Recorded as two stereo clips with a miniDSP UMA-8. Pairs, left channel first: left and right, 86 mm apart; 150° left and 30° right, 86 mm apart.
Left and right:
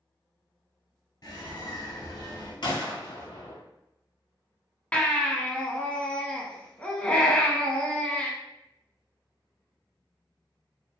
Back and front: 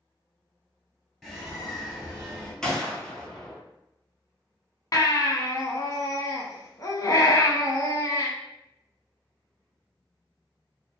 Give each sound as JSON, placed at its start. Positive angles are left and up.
{"t": 1.2, "sound": "a bird", "azimuth_deg": 65, "distance_m": 1.4}
{"t": 2.6, "sound": "a gunshot", "azimuth_deg": 70, "distance_m": 0.7}
{"t": 4.9, "sound": "a baby crying", "azimuth_deg": 160, "distance_m": 0.5}